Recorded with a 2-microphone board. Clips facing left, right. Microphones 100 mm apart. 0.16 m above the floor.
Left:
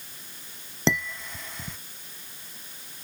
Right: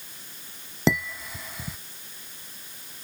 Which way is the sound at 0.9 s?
5° right (ahead or behind).